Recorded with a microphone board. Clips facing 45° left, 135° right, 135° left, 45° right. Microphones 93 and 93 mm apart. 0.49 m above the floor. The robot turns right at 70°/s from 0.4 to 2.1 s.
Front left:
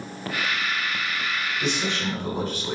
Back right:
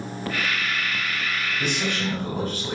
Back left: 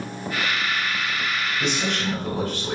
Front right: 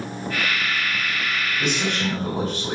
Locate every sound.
1.6 s a man speaking: 135° right, 1.9 m; by 2.8 s 100° right, 1.9 m